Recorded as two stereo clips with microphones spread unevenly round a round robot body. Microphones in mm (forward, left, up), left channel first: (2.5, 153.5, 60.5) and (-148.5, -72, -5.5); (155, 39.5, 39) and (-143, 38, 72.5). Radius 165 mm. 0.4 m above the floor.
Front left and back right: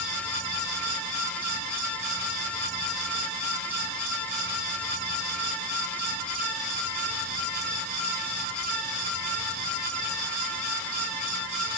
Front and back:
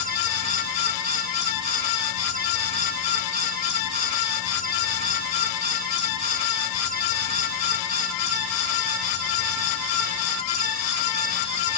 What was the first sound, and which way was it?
Only background noise.